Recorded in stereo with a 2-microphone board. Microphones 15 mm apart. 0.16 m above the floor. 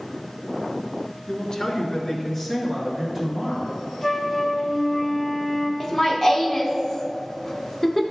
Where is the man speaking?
45° left (ahead or behind), 1.7 m; by 3.8 s 25° right (ahead or behind), 3 m.